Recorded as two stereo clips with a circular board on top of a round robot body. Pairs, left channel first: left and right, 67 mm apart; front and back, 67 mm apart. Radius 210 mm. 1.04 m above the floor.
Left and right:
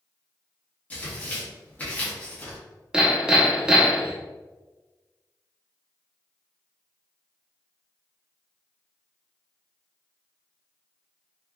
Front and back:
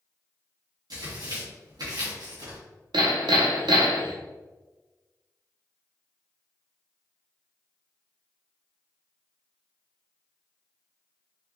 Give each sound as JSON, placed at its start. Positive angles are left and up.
{"t": 0.9, "sound": "tearing paper", "azimuth_deg": 160, "distance_m": 1.5}
{"t": 2.9, "sound": "hammering", "azimuth_deg": -170, "distance_m": 0.5}